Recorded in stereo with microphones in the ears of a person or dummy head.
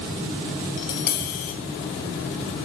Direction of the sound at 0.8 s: 50° left (ahead or behind).